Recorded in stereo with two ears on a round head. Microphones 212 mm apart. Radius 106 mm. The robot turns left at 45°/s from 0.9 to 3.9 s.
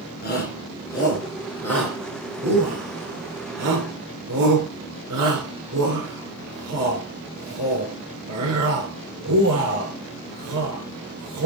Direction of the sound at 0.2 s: 45° left (ahead or behind).